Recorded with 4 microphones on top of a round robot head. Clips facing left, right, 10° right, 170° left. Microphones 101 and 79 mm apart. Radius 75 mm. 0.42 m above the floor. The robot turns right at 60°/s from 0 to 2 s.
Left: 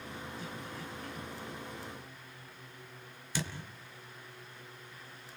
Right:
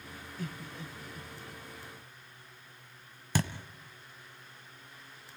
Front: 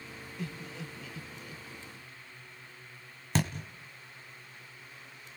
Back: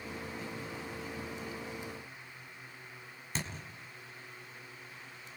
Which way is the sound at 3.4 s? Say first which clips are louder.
Right 6 dB, front 9 dB; 45° right.